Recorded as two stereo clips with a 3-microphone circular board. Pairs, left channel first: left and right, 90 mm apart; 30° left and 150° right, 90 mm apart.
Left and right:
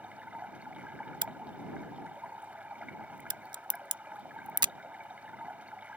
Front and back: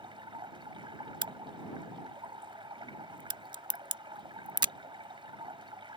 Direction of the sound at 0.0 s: 165° right.